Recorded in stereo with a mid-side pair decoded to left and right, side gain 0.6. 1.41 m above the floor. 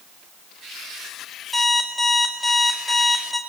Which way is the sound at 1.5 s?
Straight ahead.